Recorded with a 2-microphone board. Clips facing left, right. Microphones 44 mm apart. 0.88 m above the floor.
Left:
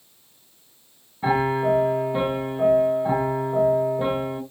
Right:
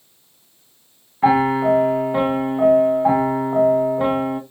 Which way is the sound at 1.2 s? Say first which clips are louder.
Right 6 dB; 65° right (ahead or behind).